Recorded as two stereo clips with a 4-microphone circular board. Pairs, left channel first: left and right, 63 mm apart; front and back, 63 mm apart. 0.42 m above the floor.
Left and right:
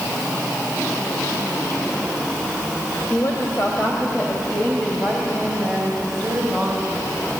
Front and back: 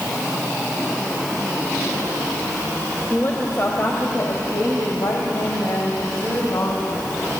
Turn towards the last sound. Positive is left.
turn(degrees=-5)